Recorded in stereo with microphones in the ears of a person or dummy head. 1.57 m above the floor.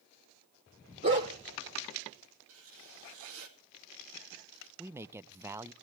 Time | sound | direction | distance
1.0 | a dog barking | 25° right (ahead or behind) | 1.4 m
2.5 | writing | 75° right (ahead or behind) | 2.5 m
4.8 | a man speaking | 10° right (ahead or behind) | 0.5 m